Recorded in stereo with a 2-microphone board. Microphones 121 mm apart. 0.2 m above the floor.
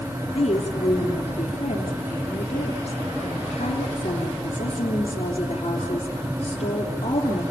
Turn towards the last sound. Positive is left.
turn(degrees=55)  # may be behind; listen again after turning